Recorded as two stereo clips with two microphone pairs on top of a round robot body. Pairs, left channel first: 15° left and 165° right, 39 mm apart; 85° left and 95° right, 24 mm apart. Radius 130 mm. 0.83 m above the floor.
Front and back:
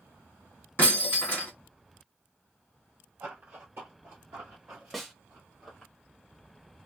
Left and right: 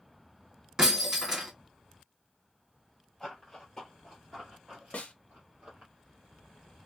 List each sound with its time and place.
0.8 s breaking glass: 20° right, 1.8 m
3.2 s running footsteps: 155° left, 1.2 m; by 5.9 s 60° right, 1.1 m
4.9 s a snare drum: 105° left, 0.6 m